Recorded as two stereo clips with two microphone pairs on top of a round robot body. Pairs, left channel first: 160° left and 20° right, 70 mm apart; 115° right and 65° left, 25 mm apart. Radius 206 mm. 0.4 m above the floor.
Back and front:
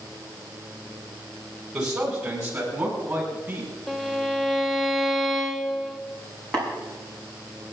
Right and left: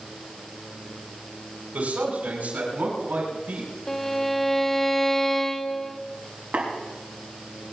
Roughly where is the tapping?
Left.